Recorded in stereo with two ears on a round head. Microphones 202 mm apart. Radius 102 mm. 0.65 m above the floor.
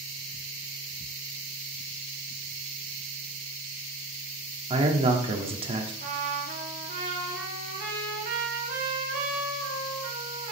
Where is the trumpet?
45° right (ahead or behind), 1.7 m.